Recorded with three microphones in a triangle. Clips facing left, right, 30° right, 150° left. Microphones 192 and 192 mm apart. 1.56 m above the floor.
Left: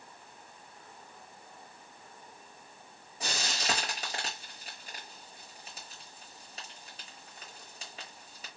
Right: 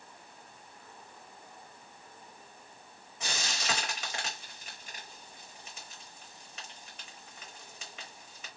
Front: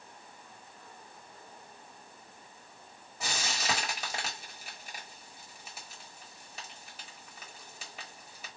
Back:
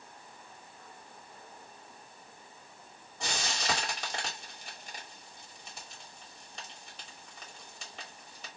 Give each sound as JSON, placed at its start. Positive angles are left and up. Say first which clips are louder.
{"t": 3.2, "sound": "frying", "louder": "left 2 dB, back 1 dB", "azimuth_deg": 50, "distance_m": 1.2}